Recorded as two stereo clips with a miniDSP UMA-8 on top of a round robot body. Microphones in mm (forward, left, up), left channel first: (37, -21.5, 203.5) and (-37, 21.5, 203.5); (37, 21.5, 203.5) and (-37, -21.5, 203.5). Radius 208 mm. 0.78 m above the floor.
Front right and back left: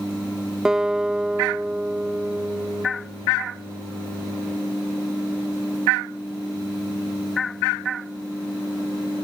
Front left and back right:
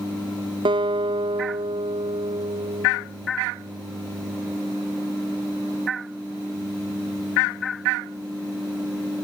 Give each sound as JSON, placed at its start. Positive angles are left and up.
{"t": 0.7, "sound": "a guitar", "azimuth_deg": -130}